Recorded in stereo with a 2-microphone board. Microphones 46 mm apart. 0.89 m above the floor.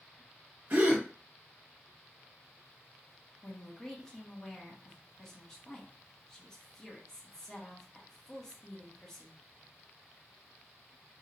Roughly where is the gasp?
Right.